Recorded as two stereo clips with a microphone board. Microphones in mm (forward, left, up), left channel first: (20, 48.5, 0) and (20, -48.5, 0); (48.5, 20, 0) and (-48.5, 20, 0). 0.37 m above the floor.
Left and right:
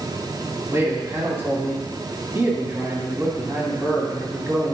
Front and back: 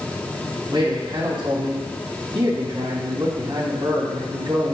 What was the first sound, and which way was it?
A man speaking, 155° right.